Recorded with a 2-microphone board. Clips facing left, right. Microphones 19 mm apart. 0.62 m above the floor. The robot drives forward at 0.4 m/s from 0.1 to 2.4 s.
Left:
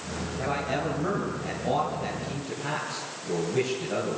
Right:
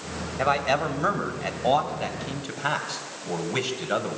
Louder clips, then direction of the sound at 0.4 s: Right 7 dB; 65° right (ahead or behind).